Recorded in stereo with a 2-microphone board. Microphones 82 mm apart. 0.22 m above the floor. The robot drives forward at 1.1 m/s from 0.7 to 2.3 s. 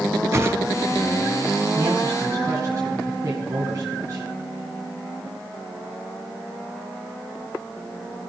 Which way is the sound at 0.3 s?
35° right (ahead or behind).